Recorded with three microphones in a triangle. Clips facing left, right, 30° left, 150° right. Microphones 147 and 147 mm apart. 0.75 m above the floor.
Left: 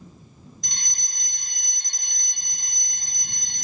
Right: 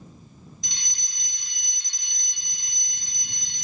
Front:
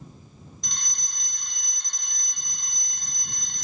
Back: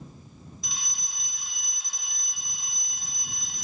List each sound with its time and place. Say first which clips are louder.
0.6 s a fire alarm: left 2 dB, even; 125° left